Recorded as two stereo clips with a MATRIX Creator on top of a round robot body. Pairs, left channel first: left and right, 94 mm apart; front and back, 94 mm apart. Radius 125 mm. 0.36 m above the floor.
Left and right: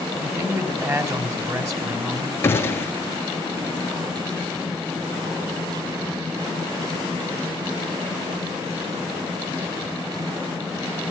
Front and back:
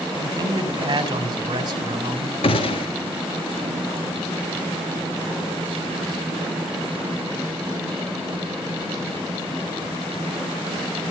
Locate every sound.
0.2 s a man speaking: 145° right, 2.5 m
2.4 s a gunshot: 25° left, 1.4 m